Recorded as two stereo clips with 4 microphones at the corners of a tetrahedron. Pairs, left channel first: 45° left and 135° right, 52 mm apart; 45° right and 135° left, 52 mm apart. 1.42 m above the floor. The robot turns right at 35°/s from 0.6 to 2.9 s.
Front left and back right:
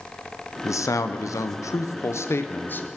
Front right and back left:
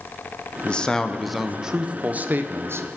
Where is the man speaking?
25° left, 0.5 m; by 2.9 s 100° left, 0.5 m.